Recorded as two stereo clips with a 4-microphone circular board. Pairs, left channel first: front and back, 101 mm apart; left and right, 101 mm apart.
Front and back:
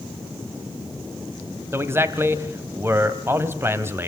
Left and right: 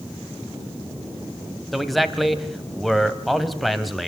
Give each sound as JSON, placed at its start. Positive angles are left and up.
{"t": 1.7, "sound": "a man speaking", "azimuth_deg": 180, "distance_m": 1.0}